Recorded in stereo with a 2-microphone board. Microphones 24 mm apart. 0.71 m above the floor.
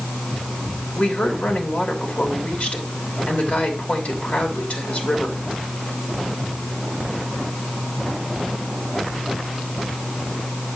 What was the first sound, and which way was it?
A woman speaking, 60° left (ahead or behind).